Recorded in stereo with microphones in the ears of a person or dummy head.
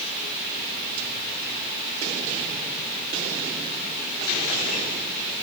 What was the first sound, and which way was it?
Only background noise.